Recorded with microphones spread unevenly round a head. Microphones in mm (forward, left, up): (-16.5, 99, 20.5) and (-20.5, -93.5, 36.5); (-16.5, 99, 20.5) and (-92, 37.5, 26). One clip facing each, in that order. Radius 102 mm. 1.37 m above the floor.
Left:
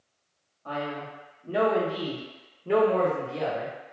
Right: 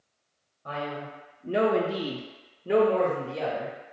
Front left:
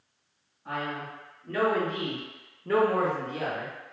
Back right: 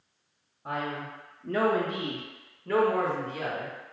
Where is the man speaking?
160° right, 0.7 m; by 3.8 s 5° right, 1.1 m.